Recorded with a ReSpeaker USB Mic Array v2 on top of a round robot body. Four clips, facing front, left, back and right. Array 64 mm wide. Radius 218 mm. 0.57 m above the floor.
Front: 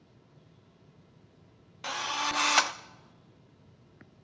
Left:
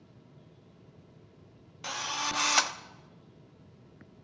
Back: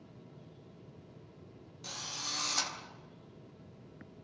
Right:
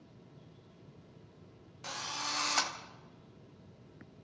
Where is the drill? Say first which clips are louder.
Left 6 dB, front 13 dB; 25° left, 1.1 m.